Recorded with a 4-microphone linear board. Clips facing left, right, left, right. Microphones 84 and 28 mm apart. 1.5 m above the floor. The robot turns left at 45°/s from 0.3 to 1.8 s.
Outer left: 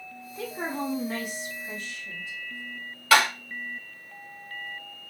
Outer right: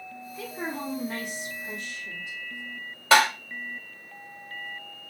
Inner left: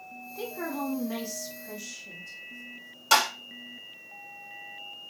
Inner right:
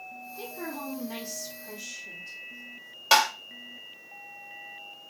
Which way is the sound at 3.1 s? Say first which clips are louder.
Outer right 1 dB, inner right 1 dB; 25° right (ahead or behind).